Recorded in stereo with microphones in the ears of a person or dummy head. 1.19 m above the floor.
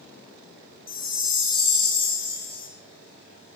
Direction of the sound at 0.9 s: 25° left (ahead or behind).